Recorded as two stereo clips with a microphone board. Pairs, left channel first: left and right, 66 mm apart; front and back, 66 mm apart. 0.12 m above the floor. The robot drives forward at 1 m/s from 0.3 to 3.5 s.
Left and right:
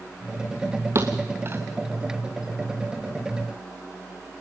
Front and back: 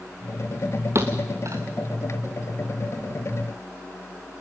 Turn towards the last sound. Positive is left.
turn(degrees=-160)